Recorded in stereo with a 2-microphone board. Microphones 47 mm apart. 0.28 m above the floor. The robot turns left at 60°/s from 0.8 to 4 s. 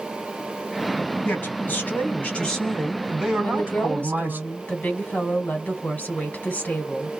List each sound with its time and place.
1.2 s a man speaking: 100° left, 1.8 m; by 4.4 s 65° right, 1.8 m
3.4 s a woman speaking: 110° left, 1.5 m; by 7.1 s 75° left, 1.5 m